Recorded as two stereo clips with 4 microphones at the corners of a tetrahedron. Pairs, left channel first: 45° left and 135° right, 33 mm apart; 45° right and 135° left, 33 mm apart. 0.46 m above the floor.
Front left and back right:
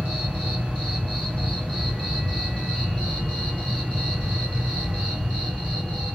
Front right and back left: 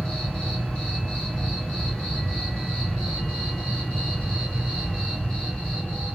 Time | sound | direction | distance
0.0 | an insect | 110° right | 1.9 m